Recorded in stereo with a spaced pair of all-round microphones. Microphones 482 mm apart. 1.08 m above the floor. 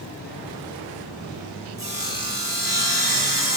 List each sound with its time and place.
1.8 s sawing: 45° right (ahead or behind), 3.5 m